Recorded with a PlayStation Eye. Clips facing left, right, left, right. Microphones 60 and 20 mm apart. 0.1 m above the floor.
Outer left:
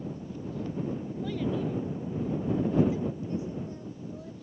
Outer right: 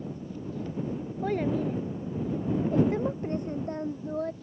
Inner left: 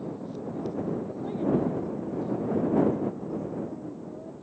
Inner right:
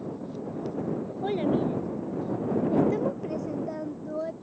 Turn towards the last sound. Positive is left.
turn(degrees=-60)  # may be behind; listen again after turning